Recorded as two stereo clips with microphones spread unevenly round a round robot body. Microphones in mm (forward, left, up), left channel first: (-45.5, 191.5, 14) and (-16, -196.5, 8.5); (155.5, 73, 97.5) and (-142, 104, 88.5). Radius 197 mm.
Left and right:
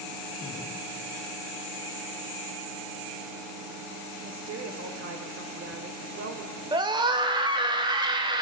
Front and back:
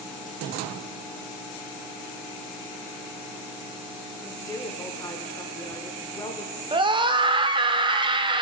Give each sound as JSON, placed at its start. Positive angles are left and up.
{"t": 4.2, "sound": "a woman speaking", "azimuth_deg": -75, "distance_m": 1.0}
{"t": 6.7, "sound": "a scream", "azimuth_deg": -145, "distance_m": 0.9}